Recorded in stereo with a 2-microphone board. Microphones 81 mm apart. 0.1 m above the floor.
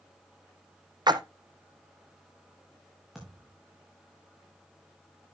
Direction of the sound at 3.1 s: 5° right (ahead or behind).